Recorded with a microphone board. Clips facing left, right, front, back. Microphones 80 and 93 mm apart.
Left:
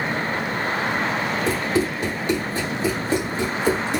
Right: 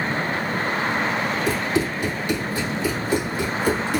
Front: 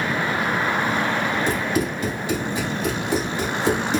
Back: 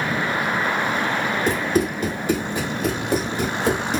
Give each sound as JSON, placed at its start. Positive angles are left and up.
{"t": 1.5, "sound": "running footsteps", "azimuth_deg": 140, "distance_m": 3.5}